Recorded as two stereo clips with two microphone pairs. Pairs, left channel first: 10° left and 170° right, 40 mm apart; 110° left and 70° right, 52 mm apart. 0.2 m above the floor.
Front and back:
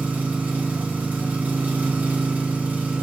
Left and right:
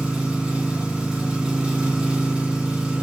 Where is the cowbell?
I don't hear a cowbell.